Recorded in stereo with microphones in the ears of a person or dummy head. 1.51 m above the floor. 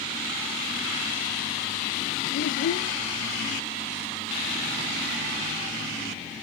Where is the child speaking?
60° left (ahead or behind), 0.6 m.